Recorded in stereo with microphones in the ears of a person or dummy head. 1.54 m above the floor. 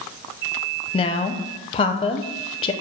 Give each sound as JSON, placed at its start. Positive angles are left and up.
{"t": 0.9, "sound": "a woman speaking", "side_deg": 35, "distance_m": 0.7}